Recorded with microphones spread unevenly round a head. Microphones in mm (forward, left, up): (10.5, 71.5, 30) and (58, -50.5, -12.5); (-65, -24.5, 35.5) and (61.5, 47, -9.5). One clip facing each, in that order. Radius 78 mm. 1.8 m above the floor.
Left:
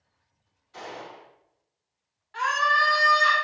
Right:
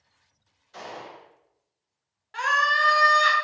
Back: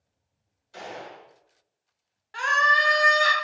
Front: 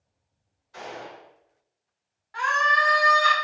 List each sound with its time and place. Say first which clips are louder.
0.7 s a gunshot: even, even; 120° right, 1.4 m
2.3 s a scream: left 1 dB, even; 125° right, 0.6 m